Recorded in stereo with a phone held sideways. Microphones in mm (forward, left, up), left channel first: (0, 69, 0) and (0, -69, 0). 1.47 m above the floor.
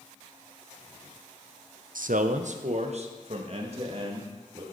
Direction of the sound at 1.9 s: 80° right.